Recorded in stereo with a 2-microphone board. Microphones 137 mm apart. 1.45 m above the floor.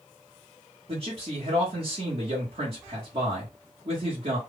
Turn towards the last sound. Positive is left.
turn(degrees=-50)  # may be behind; listen again after turning